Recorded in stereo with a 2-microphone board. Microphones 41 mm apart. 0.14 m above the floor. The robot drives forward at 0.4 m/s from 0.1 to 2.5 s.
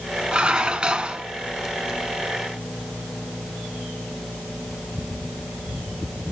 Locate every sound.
0.3 s dishes clattering: 20° right (ahead or behind), 1.0 m; by 1.2 s 25° right (ahead or behind), 1.0 m